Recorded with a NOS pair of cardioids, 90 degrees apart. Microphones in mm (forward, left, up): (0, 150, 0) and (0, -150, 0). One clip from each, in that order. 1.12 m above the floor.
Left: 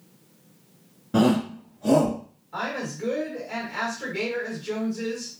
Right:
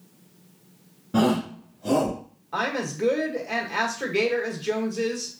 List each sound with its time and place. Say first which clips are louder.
1.1 s a shout: left 1 dB; 15° left, 0.5 m; by 2.2 s 45° left, 1.3 m
2.5 s a woman speaking: right 3 dB; 50° right, 1.6 m